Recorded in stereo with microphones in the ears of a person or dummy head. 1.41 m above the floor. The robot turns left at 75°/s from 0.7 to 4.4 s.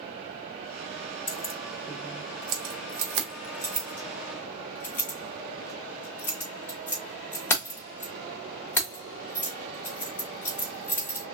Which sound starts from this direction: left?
Keys jangling, at 1.3 s.